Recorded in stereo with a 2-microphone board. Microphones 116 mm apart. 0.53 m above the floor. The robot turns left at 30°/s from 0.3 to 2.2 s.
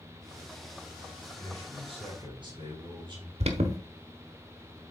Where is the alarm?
65° right (ahead or behind), 1.1 m.